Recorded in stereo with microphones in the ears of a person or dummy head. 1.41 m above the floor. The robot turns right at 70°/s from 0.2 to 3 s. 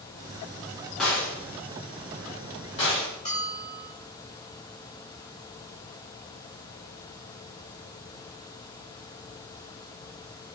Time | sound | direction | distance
1.0 | a gunshot | centre (ahead or behind) | 0.6 m
3.2 | a bell | 40° left (ahead or behind) | 1.8 m